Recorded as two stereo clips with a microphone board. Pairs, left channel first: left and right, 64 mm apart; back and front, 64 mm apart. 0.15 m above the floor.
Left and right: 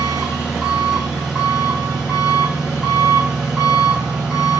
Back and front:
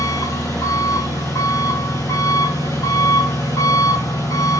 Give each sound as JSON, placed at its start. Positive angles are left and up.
{"t": 0.0, "sound": "an engine running", "azimuth_deg": -170, "distance_m": 5.5}